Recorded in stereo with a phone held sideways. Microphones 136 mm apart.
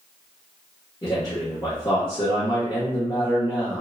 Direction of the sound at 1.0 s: 30° left (ahead or behind).